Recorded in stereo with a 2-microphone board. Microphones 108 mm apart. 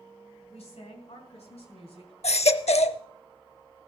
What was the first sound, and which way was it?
A woman speaking, 75° left (ahead or behind).